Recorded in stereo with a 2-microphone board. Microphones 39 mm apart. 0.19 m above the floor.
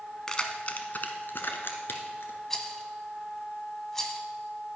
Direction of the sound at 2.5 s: 10° left (ahead or behind).